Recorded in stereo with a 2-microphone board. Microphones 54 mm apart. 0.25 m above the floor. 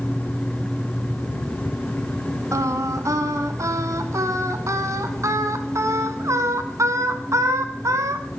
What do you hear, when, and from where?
2.5 s singing: 70° right (ahead or behind), 0.8 m